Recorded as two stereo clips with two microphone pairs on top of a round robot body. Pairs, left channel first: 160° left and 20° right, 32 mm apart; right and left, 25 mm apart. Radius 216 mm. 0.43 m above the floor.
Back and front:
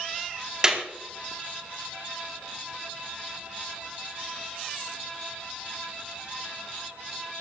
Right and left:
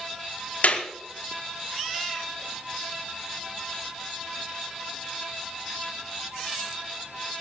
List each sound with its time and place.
0.6 s a clap: 85° right, 4.5 m